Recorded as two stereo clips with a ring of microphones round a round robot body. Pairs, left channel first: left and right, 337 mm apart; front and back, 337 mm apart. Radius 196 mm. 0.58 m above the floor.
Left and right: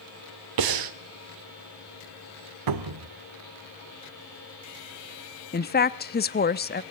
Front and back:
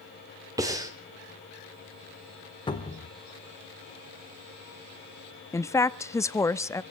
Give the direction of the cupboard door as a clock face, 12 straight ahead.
3 o'clock.